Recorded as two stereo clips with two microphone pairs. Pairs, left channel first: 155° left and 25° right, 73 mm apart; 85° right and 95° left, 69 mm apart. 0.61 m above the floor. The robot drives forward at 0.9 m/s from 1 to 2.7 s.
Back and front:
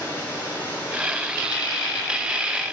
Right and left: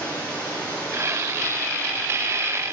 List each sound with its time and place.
0.0 s running water: 155° right, 7 m; by 2.7 s 160° right, 8.5 m